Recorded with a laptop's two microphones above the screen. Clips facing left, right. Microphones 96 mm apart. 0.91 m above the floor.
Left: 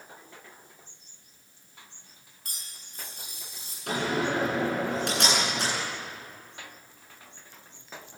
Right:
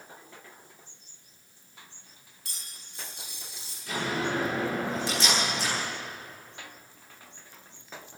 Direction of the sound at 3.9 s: 65° left (ahead or behind).